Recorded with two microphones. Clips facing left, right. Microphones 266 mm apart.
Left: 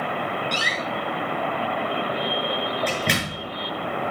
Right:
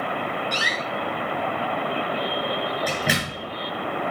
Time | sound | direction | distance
0.5 | a door slam | 5° right (ahead or behind) | 6.5 m